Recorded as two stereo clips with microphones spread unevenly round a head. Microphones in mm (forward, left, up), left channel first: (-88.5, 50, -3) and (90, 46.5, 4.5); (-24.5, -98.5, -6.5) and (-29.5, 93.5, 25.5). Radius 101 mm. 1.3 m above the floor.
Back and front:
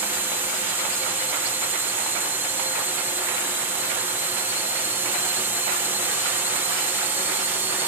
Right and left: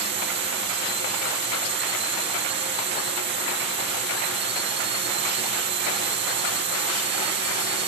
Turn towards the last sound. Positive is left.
turn(degrees=75)